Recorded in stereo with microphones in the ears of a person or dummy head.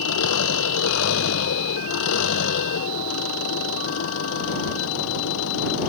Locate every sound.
0.0 s an engine running: 80° left